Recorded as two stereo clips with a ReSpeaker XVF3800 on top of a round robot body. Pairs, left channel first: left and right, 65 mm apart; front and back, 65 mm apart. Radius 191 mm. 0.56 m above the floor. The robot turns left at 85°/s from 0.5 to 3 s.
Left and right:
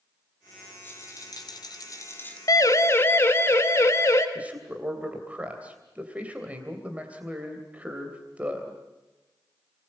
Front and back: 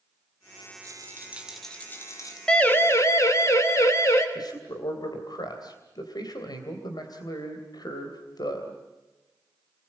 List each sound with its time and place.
0.8 s a rattle: 155° left, 3 m; by 2.4 s 20° left, 3 m
2.5 s a siren: 75° left, 2.5 m; by 4.2 s 45° left, 4 m
4.3 s a man speaking: 20° right, 3 m